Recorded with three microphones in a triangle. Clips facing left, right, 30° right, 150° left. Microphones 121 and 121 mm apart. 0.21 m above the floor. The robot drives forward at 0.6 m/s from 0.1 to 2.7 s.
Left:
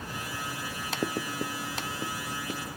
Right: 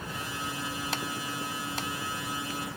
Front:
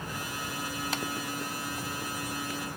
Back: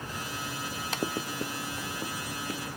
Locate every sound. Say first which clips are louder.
1.0 s writing: left 4 dB, back 2 dB; 90° left; by 2.6 s 95° left